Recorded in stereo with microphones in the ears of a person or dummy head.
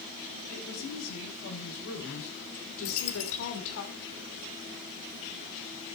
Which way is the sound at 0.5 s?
75° left (ahead or behind).